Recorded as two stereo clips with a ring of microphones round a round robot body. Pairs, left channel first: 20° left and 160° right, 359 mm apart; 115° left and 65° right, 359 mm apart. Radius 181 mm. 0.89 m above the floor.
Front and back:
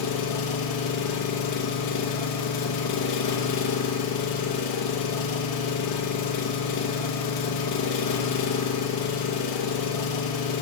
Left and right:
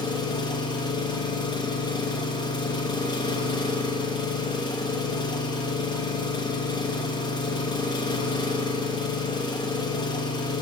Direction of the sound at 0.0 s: 35° left.